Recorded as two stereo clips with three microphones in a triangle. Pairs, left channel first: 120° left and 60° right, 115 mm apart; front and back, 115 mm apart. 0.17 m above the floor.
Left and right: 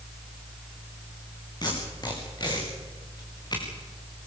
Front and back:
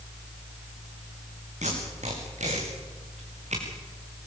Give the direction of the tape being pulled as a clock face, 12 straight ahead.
6 o'clock.